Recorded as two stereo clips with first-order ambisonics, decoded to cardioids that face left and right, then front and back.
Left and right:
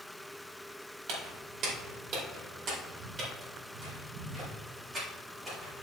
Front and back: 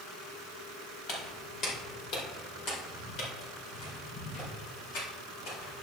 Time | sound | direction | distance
1.1 | footsteps | 55° right | 3 m